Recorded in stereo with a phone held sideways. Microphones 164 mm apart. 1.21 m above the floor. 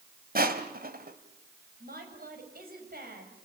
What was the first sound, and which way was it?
Crushing, 60° right (ahead or behind).